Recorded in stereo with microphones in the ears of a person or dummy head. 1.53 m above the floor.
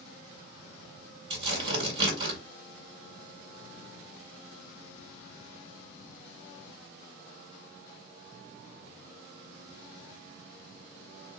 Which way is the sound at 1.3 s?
30° right (ahead or behind).